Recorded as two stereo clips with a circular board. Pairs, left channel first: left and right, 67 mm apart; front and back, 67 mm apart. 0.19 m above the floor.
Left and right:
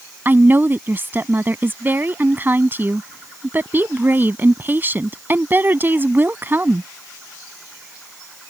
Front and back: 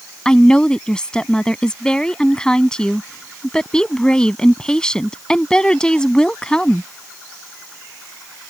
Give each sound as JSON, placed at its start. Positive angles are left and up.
{"t": 0.2, "sound": "a woman speaking", "azimuth_deg": -70}